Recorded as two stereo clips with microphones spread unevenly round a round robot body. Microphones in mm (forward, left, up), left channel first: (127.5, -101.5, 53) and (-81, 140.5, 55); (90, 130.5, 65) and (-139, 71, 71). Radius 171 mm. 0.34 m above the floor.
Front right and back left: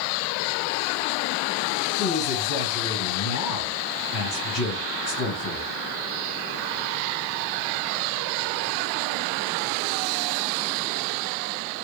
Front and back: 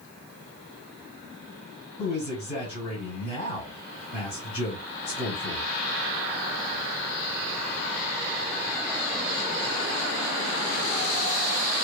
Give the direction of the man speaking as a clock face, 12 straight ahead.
1 o'clock.